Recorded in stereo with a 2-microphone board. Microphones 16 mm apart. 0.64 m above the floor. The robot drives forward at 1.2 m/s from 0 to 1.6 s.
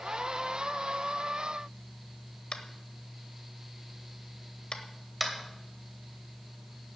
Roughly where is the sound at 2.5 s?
Left.